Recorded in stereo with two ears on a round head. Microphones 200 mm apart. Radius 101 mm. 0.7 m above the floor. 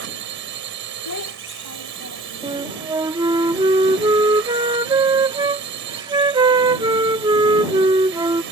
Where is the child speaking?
90° left.